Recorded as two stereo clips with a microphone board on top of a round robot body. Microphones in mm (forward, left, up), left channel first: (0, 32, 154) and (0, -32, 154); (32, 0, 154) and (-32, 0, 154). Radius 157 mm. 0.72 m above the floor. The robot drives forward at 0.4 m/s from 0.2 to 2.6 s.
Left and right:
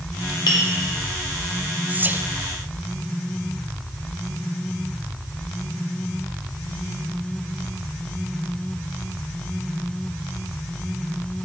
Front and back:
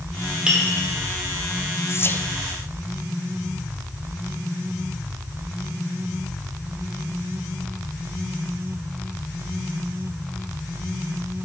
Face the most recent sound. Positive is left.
turn(degrees=-75)